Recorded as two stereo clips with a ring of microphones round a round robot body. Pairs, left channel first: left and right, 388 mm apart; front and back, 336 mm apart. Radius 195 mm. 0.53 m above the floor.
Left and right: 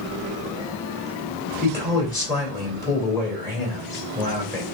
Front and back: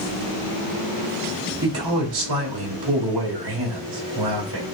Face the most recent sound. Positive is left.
turn(degrees=170)